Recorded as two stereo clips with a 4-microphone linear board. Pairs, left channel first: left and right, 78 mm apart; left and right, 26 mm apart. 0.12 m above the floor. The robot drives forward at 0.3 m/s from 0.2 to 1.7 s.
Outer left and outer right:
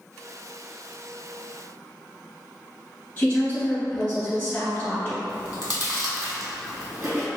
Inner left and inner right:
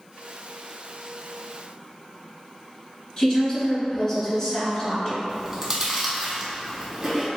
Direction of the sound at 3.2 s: 15° left (ahead or behind).